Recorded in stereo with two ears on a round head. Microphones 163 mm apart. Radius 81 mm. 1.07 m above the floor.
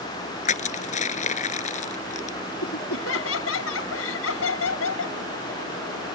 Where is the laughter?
90° left.